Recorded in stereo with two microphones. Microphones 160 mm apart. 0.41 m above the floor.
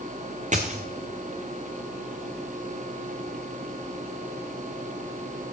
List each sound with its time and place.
0.5 s a dropped coin: 50° right (ahead or behind), 1.6 m